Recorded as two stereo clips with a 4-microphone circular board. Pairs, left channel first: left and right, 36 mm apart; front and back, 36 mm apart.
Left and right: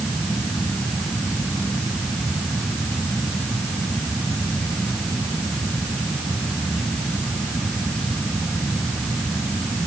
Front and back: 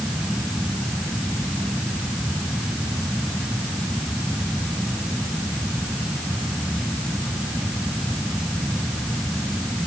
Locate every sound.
Only background noise.